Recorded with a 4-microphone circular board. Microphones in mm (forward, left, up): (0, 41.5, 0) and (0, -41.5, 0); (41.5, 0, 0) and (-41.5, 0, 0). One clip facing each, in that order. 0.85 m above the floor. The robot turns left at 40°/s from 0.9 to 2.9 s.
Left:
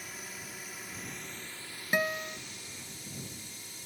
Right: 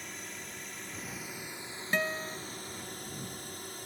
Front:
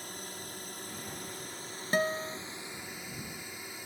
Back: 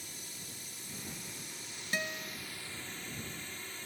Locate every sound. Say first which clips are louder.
0.0 s a drone: right 1 dB, front 7 dB; 5° left; by 3.9 s 75° right
1.9 s a guitar: left 2 dB, front 8 dB; 15° left; by 2.4 s straight ahead